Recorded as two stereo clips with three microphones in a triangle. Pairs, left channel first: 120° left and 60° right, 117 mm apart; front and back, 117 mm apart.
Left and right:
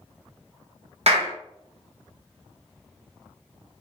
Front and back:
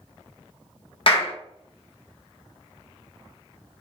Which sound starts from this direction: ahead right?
A clap, at 1.1 s.